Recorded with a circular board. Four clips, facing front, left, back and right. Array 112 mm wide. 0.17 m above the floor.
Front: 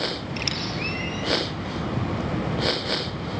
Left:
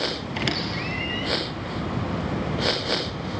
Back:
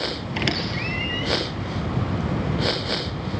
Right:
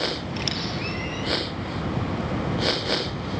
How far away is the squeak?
About 2 m.